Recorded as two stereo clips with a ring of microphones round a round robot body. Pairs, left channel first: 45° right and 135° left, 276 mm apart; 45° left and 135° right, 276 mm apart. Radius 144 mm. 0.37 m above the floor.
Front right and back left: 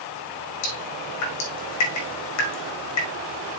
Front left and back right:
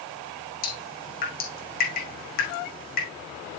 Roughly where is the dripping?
Ahead.